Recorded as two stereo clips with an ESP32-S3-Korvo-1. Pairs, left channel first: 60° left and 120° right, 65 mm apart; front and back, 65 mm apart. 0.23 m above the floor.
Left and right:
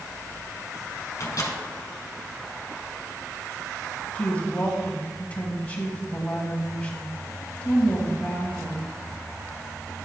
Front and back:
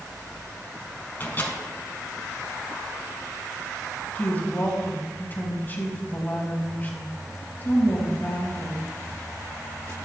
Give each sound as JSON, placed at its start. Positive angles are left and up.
{"t": 1.2, "sound": "a microwave", "azimuth_deg": 50, "distance_m": 1.6}
{"t": 4.2, "sound": "a woman speaking", "azimuth_deg": 15, "distance_m": 1.6}